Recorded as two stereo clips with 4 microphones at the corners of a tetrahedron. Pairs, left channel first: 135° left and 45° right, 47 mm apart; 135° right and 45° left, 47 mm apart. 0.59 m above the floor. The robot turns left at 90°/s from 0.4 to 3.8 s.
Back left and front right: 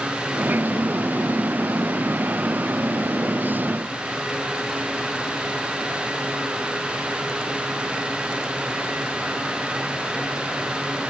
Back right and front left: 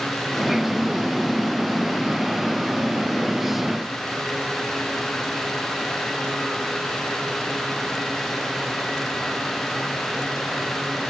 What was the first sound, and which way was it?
Only background noise.